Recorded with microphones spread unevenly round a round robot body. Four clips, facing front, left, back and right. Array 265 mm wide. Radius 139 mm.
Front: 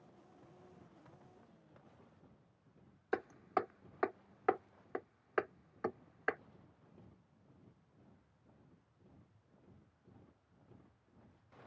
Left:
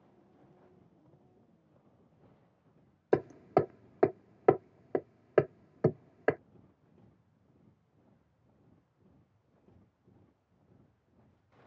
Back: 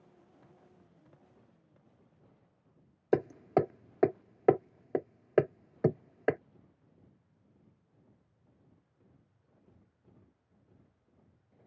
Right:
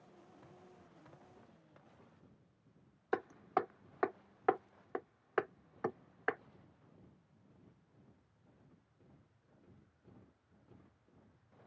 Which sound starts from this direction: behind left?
Hammering, at 3.1 s.